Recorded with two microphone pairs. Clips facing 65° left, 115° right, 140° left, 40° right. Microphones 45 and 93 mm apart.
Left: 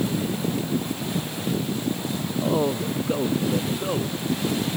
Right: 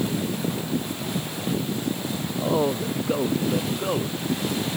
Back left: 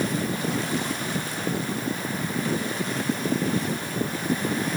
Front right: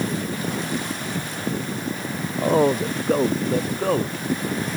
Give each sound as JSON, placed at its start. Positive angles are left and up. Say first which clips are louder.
{"t": 2.4, "sound": "a man speaking", "louder": "even, front right 12 dB", "azimuth_deg": -30}